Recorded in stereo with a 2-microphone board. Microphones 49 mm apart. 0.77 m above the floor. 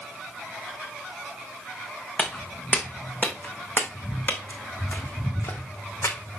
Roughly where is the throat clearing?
I don't hear throat clearing.